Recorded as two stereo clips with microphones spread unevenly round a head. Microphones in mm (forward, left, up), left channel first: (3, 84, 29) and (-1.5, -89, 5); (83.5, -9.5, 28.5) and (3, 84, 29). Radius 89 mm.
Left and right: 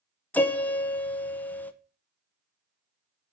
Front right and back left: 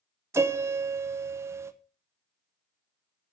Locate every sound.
0.3 s a piano: 175° left, 0.7 m